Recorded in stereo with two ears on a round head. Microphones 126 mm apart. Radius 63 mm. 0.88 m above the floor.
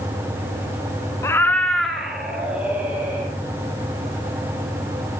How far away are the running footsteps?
No running footsteps in this recording.